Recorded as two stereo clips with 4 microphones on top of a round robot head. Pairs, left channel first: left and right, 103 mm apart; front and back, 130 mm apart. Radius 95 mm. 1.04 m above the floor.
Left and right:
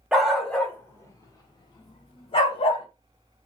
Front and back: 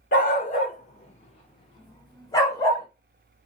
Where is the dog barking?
10° right, 0.9 m; by 2.9 s 65° left, 1.6 m.